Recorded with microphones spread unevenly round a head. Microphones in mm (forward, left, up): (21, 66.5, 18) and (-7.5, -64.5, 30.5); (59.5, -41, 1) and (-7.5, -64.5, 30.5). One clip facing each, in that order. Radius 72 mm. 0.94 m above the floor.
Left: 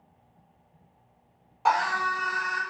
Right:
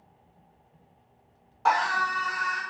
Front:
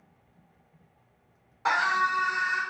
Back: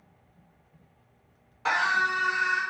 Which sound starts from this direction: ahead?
A scream, at 1.6 s.